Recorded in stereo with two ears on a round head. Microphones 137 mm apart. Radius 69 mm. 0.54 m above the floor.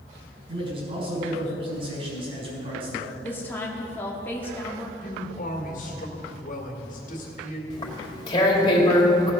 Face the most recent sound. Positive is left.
turn(degrees=30)  # may be behind; listen again after turning